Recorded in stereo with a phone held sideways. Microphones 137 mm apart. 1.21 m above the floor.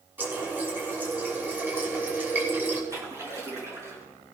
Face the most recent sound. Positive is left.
turn(degrees=-20)  # may be behind; listen again after turning